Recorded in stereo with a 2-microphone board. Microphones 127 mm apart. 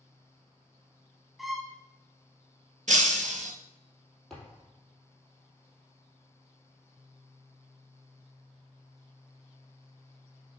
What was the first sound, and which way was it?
A violin, centre (ahead or behind).